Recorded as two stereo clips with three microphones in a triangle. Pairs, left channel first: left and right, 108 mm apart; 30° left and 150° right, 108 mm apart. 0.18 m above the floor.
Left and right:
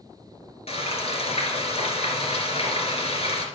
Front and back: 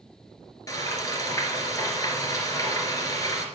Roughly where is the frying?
Left.